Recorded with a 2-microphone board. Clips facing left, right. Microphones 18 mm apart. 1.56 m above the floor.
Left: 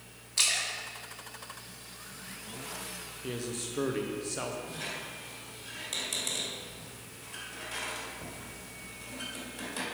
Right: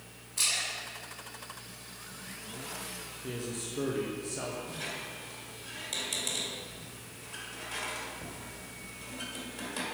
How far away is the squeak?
About 1.9 m.